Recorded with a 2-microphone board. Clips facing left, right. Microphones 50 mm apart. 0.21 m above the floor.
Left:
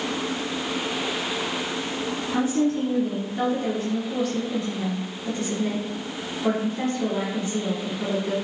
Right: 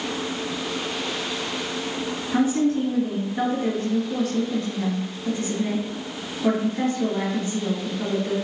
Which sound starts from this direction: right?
A woman speaking, at 2.3 s.